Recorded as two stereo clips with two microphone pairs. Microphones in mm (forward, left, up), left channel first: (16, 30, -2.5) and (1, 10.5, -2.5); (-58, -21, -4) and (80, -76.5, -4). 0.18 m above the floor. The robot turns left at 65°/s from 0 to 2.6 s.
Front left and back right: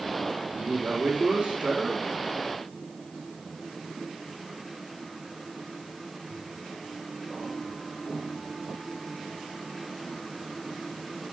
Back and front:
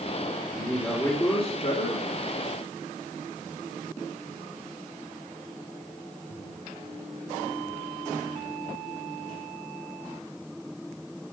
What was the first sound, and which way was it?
A man speaking, 100° right.